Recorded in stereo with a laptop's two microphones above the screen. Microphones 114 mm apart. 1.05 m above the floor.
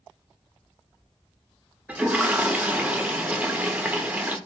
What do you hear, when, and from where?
1.9 s a toilet flushing: 15° right (ahead or behind), 0.5 m